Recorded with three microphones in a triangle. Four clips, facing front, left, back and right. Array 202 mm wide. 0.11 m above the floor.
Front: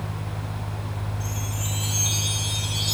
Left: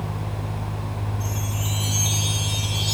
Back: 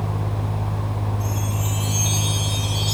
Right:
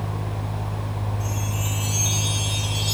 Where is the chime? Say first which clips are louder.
Right 1 dB, back 6 dB; 60° left, 6.5 m.